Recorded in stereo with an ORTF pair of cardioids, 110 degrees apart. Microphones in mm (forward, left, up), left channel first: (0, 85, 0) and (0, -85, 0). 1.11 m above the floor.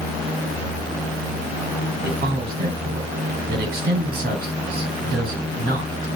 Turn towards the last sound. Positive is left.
turn(degrees=-65)